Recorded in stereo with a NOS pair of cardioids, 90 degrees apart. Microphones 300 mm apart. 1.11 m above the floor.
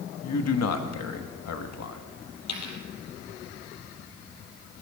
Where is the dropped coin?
65° left, 4 m.